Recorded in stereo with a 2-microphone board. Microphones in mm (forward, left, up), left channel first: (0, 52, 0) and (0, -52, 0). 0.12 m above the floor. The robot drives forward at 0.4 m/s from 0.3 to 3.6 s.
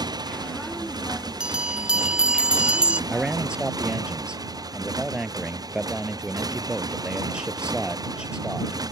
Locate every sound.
0.0 s a motorcycle: 40° right (ahead or behind)
1.4 s a bell: 10° right (ahead or behind)
3.1 s a man speaking: 10° right (ahead or behind)